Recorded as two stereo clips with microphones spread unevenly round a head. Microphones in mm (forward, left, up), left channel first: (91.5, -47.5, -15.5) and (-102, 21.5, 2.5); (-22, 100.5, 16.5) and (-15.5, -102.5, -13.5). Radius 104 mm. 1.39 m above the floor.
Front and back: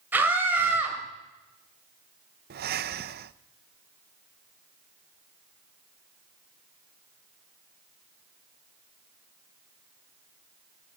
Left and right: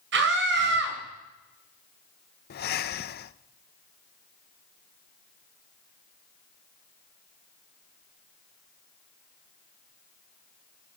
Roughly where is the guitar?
No guitar in this recording.